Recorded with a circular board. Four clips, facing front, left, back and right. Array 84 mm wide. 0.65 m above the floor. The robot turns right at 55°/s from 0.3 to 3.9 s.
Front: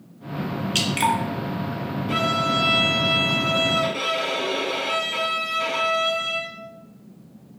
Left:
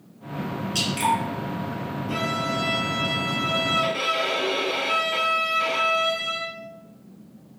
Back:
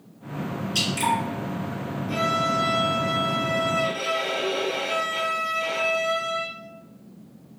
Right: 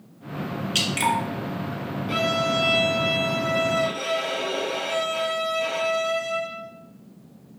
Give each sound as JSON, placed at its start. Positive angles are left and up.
{"t": 0.8, "sound": "dripping", "azimuth_deg": -35, "distance_m": 0.9}
{"t": 2.1, "sound": "a violin", "azimuth_deg": -50, "distance_m": 0.9}